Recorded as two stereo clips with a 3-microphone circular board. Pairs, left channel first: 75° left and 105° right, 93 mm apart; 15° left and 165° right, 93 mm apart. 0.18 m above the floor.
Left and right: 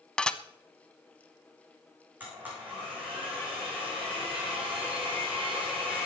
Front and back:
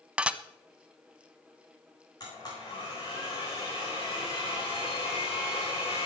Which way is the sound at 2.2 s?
35° right.